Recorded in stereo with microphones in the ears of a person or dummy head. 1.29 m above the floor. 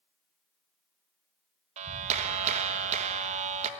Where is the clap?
40° right (ahead or behind), 1.4 m.